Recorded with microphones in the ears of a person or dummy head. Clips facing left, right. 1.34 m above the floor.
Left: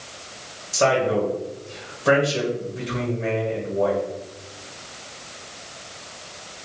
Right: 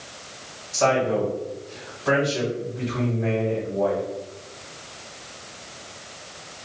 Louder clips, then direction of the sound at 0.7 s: Left 1 dB; 45° left (ahead or behind).